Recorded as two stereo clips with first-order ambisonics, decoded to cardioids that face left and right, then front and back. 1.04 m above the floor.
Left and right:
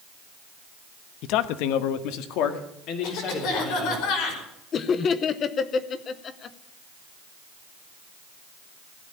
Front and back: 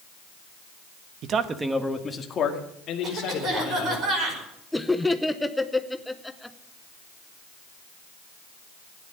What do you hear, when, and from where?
1.2 s a man speaking: 130° left, 1.0 m; by 4.0 s 45° left, 3.5 m
3.0 s a cough: 120° left, 5 m
4.7 s laughter: 80° left, 0.7 m